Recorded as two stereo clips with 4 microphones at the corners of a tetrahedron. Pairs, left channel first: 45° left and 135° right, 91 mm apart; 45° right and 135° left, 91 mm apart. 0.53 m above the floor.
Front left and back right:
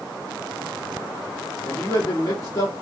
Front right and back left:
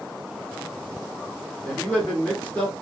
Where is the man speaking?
25° left, 1.3 m.